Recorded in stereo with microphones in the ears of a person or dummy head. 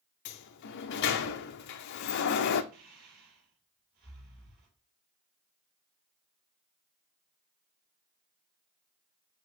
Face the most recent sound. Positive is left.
turn(degrees=-55)  # may be behind; listen again after turning